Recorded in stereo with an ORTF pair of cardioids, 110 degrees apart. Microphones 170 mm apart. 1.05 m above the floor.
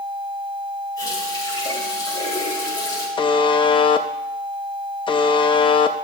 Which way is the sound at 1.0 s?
20° left.